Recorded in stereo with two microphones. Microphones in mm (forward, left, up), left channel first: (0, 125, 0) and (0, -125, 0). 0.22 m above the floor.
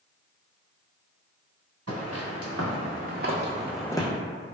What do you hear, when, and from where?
1.9 s footsteps: 80° right, 1.3 m; by 4.1 s 25° left (ahead or behind), 0.5 m